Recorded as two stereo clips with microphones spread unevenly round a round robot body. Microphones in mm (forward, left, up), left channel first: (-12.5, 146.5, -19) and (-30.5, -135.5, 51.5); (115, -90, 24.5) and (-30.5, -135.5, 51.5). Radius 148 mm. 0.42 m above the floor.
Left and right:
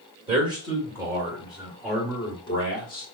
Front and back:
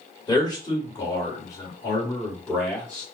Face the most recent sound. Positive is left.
turn(degrees=80)